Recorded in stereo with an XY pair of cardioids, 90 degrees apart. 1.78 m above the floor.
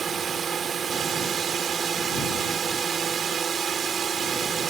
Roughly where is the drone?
Ahead right.